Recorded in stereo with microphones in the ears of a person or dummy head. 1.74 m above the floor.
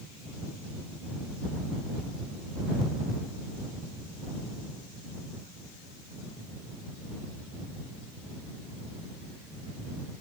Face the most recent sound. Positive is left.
No sound to turn to.